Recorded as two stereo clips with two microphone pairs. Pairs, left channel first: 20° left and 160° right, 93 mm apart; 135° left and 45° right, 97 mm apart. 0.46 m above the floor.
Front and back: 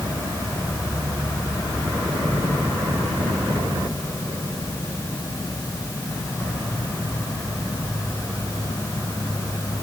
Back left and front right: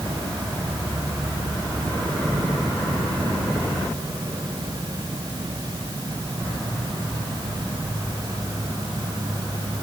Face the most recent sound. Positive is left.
No sound to turn to.